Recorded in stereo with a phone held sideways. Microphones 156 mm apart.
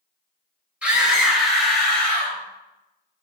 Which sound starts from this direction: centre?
A scream, at 0.8 s.